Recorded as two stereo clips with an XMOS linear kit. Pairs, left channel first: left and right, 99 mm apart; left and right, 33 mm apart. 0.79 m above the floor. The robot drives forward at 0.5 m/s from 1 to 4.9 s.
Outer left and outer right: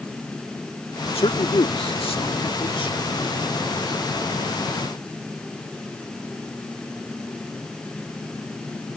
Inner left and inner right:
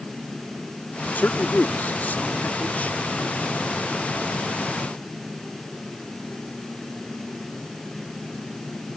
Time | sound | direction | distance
1.1 | a man speaking | 70° left (ahead or behind) | ?